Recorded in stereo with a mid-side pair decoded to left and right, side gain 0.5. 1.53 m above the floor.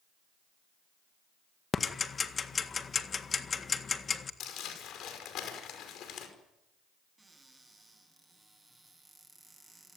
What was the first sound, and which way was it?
Ticking, 35° left.